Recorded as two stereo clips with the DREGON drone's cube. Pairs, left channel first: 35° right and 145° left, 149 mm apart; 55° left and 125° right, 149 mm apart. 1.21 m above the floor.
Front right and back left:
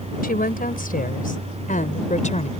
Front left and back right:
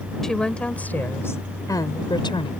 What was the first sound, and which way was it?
A woman speaking, 30° right.